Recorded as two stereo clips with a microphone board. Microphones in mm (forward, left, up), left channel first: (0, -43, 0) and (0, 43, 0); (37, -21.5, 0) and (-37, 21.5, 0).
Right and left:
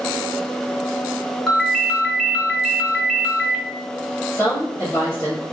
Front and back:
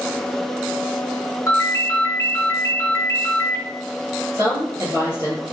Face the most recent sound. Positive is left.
turn(degrees=130)